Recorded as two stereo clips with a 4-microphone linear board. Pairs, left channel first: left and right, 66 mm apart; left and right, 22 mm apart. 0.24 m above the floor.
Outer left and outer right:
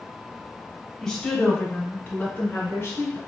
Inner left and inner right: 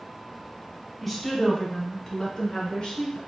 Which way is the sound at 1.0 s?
5° left (ahead or behind).